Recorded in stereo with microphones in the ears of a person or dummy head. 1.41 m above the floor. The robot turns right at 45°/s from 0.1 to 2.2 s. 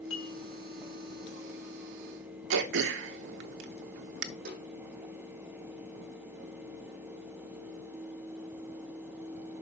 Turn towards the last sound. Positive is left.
turn(degrees=-55)  # may be behind; listen again after turning